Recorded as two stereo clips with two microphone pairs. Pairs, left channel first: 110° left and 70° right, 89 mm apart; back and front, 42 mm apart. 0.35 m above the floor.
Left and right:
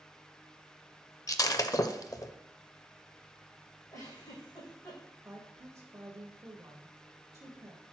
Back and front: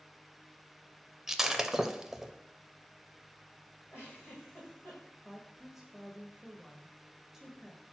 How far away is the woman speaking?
About 1.1 m.